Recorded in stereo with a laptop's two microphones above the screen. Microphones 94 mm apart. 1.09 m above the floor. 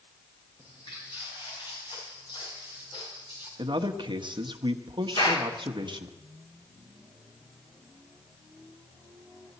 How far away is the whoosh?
No whoosh in this recording.